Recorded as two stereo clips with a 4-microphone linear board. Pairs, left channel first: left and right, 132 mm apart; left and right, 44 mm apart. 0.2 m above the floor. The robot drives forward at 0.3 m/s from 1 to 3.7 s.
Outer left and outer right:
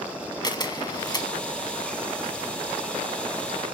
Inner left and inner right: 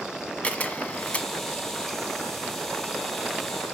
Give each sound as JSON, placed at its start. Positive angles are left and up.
{"t": 0.4, "sound": "a camera shutter", "side_deg": 30, "distance_m": 1.0}